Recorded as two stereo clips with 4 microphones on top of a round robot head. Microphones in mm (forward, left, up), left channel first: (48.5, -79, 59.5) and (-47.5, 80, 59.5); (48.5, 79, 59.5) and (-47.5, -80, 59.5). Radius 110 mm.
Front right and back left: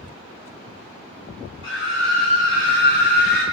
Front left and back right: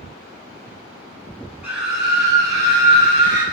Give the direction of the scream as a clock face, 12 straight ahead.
1 o'clock.